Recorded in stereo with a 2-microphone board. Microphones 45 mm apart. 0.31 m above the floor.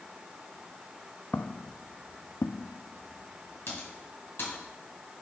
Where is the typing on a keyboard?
55° left (ahead or behind), 4.5 m.